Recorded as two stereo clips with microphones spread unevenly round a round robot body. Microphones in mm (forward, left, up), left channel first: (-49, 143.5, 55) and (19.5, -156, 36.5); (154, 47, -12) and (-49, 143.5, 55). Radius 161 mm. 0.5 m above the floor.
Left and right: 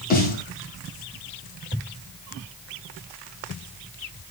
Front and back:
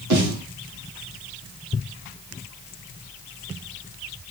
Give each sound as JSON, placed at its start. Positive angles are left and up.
{"t": 0.1, "sound": "a snare drum", "azimuth_deg": 165, "distance_m": 3.0}